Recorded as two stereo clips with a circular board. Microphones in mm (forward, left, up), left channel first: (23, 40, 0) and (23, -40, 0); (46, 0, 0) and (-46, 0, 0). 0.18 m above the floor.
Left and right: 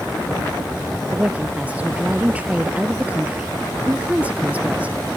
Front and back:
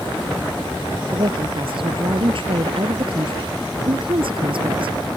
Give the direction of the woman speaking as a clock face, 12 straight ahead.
5 o'clock.